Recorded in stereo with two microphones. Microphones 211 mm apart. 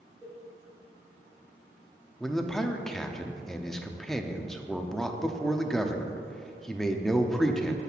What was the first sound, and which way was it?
A cowbell, 10° right (ahead or behind).